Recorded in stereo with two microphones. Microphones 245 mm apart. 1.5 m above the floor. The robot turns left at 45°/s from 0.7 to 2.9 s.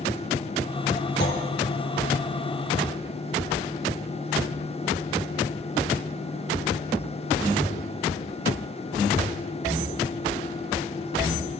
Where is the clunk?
50° left (ahead or behind), 2 m; by 1.4 s 55° left (ahead or behind), 2 m.